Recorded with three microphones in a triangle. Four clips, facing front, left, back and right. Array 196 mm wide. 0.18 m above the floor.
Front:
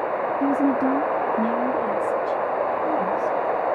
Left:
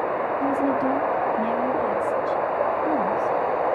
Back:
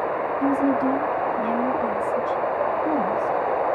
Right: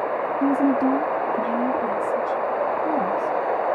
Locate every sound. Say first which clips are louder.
0.4 s a woman speaking: right 5 dB, even; 50° right, 1.8 m; by 3.4 s 140° right, 1.3 m